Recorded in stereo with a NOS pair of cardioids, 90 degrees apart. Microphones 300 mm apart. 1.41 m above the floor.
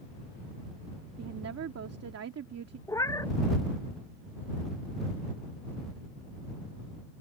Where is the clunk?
I don't hear a clunk.